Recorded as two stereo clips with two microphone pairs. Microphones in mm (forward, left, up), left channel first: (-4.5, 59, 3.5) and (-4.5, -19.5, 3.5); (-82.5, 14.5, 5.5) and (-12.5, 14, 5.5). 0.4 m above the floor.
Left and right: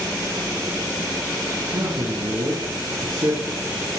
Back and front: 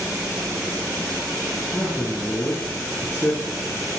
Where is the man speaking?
110° right, 5 m.